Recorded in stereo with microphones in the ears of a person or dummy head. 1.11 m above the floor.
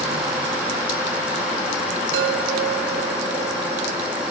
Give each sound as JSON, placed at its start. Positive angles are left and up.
{"t": 2.1, "sound": "a chime", "side_deg": -70, "distance_m": 2.0}